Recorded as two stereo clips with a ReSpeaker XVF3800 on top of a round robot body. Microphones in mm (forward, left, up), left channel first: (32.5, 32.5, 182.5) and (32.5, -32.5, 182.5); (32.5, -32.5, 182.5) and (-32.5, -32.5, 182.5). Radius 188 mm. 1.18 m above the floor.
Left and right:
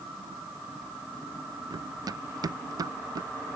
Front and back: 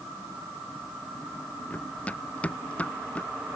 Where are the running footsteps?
70° right.